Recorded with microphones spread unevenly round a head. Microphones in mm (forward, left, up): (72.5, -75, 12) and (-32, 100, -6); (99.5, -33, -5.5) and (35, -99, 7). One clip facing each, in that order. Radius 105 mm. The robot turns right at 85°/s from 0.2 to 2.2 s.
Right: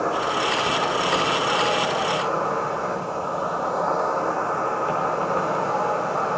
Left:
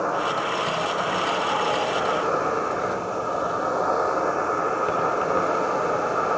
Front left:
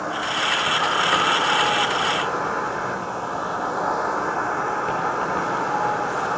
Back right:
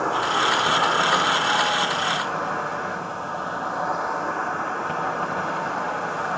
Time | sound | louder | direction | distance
0.0 | an insect | right 1 dB, back right 3 dB | 115° right | 5.5 m